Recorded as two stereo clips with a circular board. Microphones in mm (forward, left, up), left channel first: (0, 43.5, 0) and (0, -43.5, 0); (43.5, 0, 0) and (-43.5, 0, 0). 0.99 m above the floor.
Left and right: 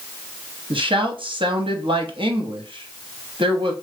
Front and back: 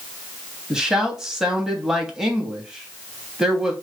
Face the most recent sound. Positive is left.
turn(degrees=-95)